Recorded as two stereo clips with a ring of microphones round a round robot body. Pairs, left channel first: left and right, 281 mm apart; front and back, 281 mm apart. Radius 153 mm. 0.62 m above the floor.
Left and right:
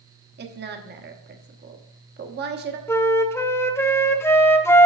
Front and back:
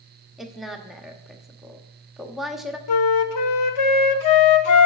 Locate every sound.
0.4 s a woman speaking: 90° right, 1.0 m
2.9 s a flute: 10° left, 0.7 m